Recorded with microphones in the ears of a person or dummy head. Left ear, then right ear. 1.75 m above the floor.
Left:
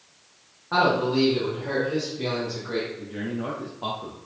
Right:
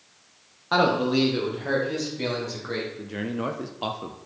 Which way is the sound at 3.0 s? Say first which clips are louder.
Right 2 dB; 75° right (ahead or behind).